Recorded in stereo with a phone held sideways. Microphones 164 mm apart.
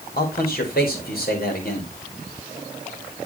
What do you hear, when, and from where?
0.2 s a man speaking: 65° left (ahead or behind), 4 m